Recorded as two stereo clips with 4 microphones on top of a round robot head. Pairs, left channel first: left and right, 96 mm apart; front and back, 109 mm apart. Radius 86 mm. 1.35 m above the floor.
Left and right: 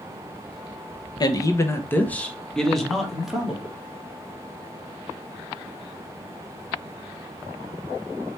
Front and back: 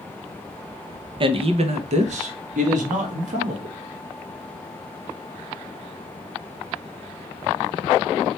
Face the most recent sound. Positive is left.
turn(degrees=-175)